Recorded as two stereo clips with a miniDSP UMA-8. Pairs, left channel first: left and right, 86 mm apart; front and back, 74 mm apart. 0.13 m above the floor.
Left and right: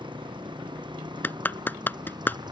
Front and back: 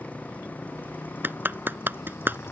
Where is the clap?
140° left.